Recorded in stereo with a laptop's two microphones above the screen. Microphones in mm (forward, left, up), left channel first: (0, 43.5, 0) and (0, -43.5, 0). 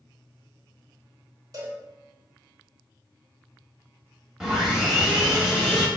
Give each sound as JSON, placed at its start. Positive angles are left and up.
{"t": 1.5, "sound": "a cowbell", "side_deg": -45, "distance_m": 1.0}
{"t": 4.4, "sound": "sawing", "side_deg": -5, "distance_m": 1.2}